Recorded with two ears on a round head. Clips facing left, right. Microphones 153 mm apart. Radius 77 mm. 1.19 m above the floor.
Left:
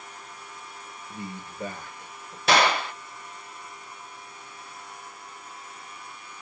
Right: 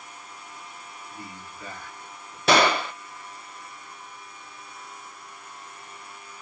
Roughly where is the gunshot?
Right.